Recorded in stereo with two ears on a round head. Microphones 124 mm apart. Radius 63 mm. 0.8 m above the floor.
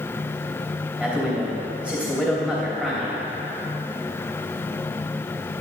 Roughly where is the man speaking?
Centre.